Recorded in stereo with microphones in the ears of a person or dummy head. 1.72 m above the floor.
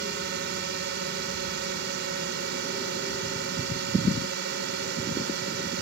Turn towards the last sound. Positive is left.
turn(degrees=-65)  # may be behind; listen again after turning